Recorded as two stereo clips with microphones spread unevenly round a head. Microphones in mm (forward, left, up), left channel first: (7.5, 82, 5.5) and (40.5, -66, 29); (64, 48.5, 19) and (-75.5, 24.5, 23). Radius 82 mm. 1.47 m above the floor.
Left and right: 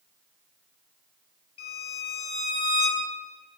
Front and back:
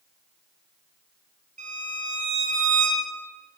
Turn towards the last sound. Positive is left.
turn(degrees=165)